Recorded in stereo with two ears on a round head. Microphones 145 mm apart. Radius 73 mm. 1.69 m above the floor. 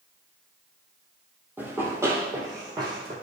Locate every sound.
1.6 s running footsteps: 15° right (ahead or behind), 3.5 m; by 3.1 s 35° right (ahead or behind), 4 m